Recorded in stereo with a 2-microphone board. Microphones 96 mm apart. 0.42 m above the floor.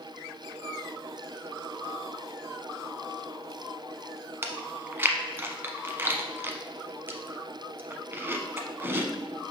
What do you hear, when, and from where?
4.4 s chewing: 25° right (ahead or behind), 0.7 m